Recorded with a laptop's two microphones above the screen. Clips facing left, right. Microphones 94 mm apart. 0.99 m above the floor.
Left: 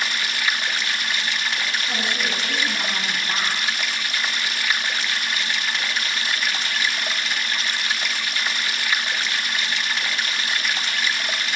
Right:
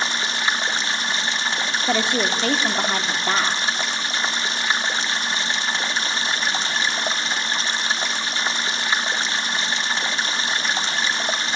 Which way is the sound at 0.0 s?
30° right (ahead or behind).